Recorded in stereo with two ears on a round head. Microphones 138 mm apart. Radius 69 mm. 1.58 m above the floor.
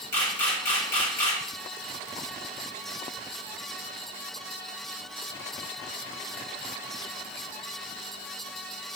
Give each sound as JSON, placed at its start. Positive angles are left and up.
{"t": 0.1, "sound": "a camera shutter", "side_deg": 20, "distance_m": 1.5}